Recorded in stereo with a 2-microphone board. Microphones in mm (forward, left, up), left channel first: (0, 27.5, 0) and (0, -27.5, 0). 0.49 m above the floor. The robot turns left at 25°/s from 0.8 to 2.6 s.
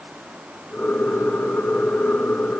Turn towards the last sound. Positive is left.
No sound to turn to.